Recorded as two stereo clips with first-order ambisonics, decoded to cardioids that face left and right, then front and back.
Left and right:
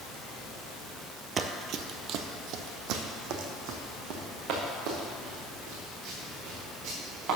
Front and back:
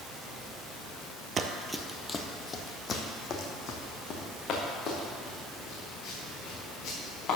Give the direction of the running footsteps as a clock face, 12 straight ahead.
4 o'clock.